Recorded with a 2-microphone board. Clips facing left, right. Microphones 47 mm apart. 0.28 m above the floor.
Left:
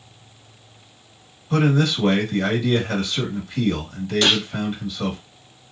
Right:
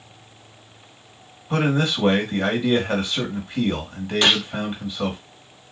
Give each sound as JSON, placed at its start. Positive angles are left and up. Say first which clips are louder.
{"t": 1.5, "sound": "a man speaking", "louder": "left 2 dB", "side_deg": -30, "distance_m": 1.5}
{"t": 4.2, "sound": "a gunshot", "louder": "right 1 dB", "side_deg": -20, "distance_m": 1.2}